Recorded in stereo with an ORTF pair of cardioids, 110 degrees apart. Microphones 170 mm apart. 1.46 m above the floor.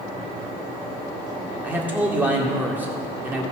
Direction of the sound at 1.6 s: 10° right.